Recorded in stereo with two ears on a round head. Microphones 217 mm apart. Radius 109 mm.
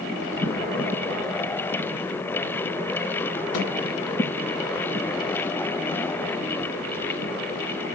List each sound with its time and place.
3.5 s a microwave: 75° left (ahead or behind), 1.6 m